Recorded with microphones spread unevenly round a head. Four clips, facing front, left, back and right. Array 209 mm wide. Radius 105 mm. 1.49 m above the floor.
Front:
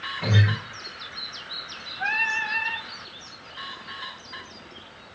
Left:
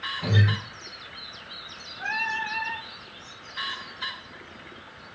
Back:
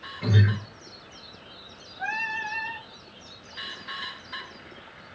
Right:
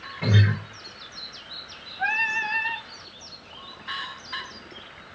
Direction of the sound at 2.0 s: 65° right.